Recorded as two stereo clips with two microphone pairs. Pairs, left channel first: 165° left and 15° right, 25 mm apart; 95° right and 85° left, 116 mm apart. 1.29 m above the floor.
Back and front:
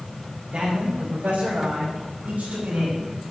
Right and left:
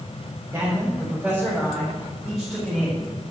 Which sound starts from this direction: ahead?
A man speaking, at 0.5 s.